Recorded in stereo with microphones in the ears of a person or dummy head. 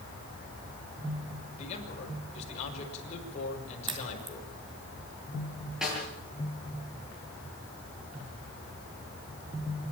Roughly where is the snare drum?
Centre.